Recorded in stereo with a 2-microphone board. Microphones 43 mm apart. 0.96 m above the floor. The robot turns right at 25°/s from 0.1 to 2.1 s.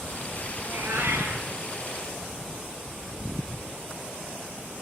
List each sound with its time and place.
0.6 s a cat meowing: 80° right, 6.5 m; by 1.5 s 55° right (ahead or behind), 6.5 m